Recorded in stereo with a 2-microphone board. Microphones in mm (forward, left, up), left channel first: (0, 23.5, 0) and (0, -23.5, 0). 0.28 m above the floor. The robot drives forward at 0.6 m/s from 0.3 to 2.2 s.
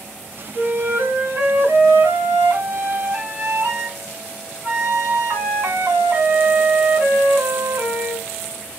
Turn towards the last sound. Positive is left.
turn(degrees=-45)  # may be behind; listen again after turning